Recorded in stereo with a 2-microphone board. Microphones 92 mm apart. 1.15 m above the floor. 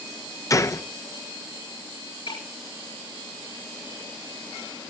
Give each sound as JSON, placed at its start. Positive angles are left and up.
{"t": 0.5, "sound": "a gunshot", "side_deg": 35, "distance_m": 0.6}
{"t": 2.3, "sound": "breaking glass", "side_deg": 70, "distance_m": 6.0}